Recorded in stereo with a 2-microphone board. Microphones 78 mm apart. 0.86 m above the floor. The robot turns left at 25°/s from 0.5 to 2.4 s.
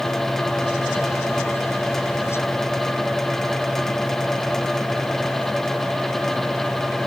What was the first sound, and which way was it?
Only background noise.